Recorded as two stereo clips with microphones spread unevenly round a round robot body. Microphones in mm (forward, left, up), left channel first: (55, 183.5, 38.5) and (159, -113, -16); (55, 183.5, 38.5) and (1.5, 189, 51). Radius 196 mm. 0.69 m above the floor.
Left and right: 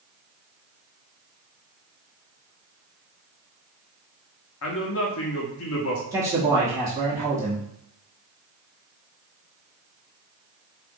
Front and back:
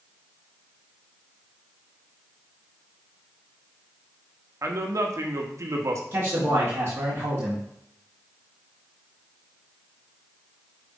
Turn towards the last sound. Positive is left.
turn(degrees=-140)